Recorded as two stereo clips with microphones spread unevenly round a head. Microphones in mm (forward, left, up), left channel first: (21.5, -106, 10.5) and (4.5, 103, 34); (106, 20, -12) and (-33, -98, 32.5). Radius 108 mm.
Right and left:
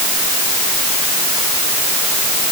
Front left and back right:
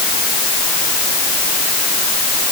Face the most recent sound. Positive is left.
No sound to turn to.